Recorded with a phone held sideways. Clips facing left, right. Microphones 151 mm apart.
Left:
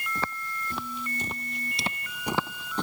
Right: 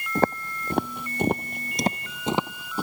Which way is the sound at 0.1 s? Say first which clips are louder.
Right 13 dB; 50° right (ahead or behind).